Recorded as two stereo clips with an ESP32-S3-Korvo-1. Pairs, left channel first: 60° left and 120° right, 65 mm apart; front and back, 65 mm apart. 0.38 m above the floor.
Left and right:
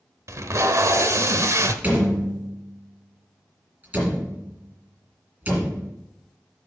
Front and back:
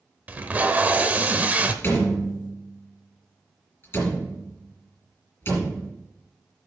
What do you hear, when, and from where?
0.3 s tape being pulled: 125° right, 0.8 m
1.8 s a door slam: 55° right, 4.5 m